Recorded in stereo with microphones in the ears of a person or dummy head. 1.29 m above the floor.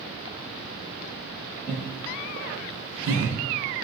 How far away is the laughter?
About 1.6 m.